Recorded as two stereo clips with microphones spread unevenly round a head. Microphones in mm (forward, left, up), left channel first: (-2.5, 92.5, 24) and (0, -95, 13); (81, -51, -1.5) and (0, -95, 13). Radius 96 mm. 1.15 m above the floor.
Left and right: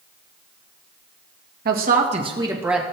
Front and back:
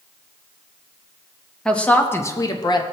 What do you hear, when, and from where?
1.6 s a woman speaking: 50° right, 1.9 m; by 2.8 s straight ahead, 1.7 m